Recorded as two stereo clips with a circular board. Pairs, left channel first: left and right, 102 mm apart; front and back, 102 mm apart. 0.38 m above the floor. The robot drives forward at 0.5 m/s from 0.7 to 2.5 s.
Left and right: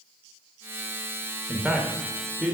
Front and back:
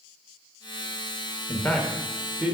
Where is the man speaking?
25° right, 0.8 m; by 2.5 s 145° right, 0.8 m.